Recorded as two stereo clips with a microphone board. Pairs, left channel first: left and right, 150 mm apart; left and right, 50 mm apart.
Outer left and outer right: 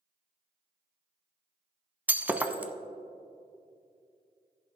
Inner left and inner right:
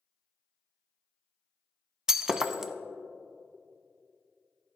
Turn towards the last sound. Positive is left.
turn(degrees=-10)  # may be behind; listen again after turning